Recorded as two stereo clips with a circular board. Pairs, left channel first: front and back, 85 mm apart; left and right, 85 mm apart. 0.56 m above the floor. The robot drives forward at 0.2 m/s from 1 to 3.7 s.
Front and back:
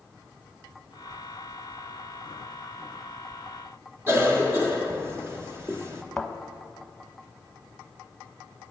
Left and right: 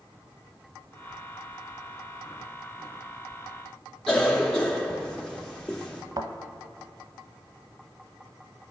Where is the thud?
85° right, 0.7 m.